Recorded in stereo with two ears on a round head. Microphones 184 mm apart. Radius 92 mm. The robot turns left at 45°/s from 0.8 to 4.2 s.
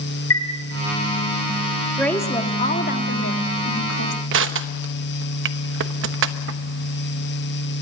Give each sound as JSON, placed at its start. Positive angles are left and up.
{"t": 0.3, "sound": "a chime", "side_deg": 70, "distance_m": 3.5}
{"t": 2.0, "sound": "a woman speaking", "azimuth_deg": 180, "distance_m": 1.8}
{"t": 4.3, "sound": "crushing", "side_deg": -60, "distance_m": 1.0}